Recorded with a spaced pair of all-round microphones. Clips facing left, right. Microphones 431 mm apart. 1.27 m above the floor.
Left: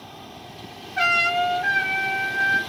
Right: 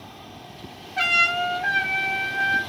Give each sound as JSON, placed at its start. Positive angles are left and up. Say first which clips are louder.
{"t": 1.0, "sound": "a trumpet", "louder": "left 4 dB", "side_deg": -45, "distance_m": 1.8}